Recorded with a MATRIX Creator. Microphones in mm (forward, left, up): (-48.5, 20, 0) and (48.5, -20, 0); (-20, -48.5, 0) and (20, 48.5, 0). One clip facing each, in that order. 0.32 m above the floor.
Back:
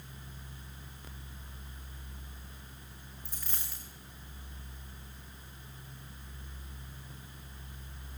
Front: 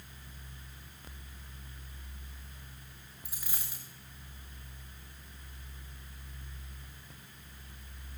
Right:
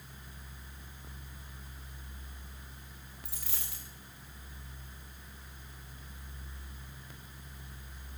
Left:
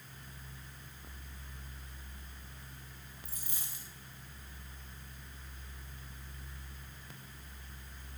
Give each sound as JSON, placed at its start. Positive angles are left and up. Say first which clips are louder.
{"t": 3.2, "sound": "a dropped coin", "louder": "front 1 dB, right 3 dB", "azimuth_deg": -105, "distance_m": 9.0}